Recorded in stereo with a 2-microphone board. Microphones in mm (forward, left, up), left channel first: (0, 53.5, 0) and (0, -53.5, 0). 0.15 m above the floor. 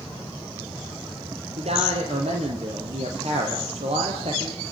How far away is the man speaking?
About 4 m.